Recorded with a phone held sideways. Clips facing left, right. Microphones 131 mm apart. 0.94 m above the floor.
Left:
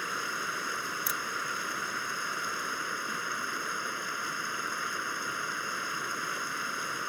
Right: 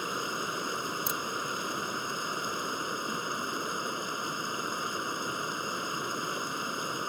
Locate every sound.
0.0 s running water: 20° right (ahead or behind)
1.1 s a crack: 25° right (ahead or behind)